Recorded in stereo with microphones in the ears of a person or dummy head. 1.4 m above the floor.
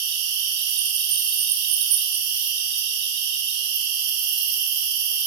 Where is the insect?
55° right (ahead or behind), 1.4 m.